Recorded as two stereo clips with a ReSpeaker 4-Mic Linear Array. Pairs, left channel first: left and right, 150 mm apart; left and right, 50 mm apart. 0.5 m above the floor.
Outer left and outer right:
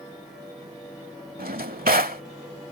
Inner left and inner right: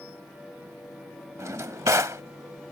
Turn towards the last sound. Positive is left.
turn(degrees=-80)